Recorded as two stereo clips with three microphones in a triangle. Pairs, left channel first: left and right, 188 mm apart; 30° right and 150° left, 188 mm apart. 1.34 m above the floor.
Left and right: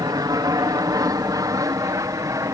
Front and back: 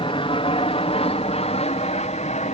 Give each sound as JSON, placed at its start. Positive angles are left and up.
{"t": 0.0, "sound": "an aircraft", "azimuth_deg": -45}